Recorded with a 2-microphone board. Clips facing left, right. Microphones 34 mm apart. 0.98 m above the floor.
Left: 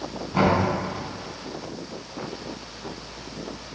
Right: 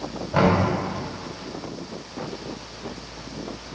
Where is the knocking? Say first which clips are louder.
Right 1 dB; 80° right, 3 m.